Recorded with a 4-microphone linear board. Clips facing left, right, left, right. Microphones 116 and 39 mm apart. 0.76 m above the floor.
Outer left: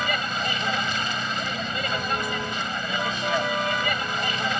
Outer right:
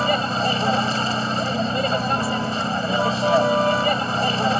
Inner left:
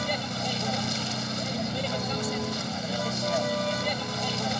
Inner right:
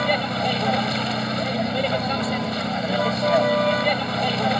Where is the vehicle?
35° right (ahead or behind).